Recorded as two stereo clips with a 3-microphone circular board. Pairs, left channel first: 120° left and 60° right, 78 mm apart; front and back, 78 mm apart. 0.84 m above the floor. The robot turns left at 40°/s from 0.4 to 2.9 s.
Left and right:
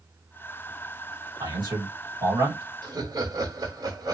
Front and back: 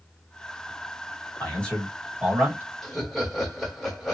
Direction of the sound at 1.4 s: 65° right.